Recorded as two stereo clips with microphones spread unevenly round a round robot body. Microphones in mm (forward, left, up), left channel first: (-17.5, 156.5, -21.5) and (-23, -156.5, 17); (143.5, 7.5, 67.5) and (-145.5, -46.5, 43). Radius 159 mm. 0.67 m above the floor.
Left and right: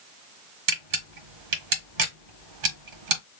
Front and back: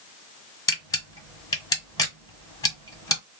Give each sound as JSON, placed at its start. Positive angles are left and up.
{"t": 0.7, "sound": "a camera shutter", "azimuth_deg": -65, "distance_m": 0.9}